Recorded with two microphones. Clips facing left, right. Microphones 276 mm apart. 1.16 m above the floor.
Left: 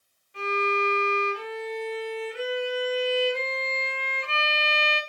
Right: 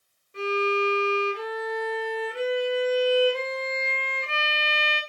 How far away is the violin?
About 1.3 m.